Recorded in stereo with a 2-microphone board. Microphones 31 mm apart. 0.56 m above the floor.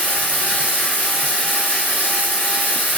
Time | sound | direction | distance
0.0 | running water | 75° left (ahead or behind) | 1.5 m